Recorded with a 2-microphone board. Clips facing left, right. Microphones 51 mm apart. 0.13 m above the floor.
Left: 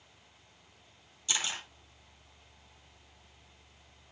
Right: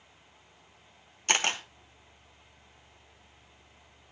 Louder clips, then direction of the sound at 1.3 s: Right 7 dB; 60° right (ahead or behind).